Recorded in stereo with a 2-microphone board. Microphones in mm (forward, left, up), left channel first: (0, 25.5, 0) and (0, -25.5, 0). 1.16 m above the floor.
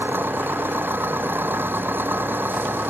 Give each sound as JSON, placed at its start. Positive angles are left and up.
{"t": 0.0, "sound": "an engine running", "side_deg": -40}